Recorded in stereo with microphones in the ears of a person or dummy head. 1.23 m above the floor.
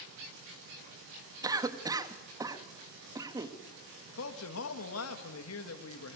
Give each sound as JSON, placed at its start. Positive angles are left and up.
{"t": 1.4, "sound": "a cough", "side_deg": -25, "distance_m": 1.6}
{"t": 4.1, "sound": "a man speaking", "side_deg": 80, "distance_m": 1.8}